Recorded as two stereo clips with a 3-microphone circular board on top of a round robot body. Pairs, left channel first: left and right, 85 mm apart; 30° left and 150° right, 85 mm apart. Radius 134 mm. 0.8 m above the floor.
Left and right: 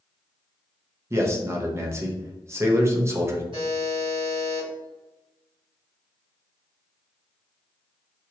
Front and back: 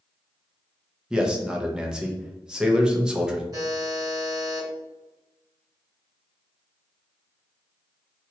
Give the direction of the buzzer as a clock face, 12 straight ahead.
3 o'clock.